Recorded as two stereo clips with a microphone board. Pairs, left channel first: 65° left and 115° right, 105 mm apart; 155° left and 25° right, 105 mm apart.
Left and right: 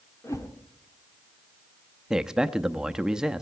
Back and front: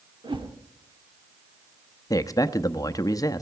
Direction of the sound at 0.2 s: 10° left.